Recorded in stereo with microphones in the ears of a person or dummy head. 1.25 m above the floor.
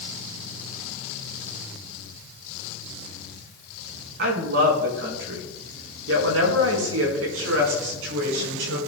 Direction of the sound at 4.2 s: 60° right (ahead or behind).